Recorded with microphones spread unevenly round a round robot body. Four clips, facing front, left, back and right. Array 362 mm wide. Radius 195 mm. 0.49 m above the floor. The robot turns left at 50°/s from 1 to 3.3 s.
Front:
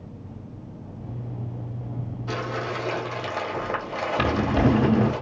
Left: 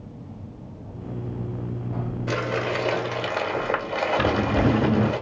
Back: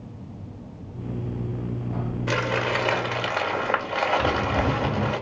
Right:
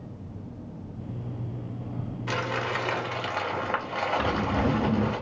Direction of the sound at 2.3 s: 160° left.